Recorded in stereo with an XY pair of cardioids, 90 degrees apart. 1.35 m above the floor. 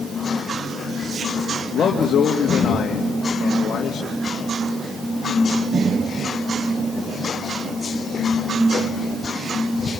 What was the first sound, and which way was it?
A man speaking, 65° left.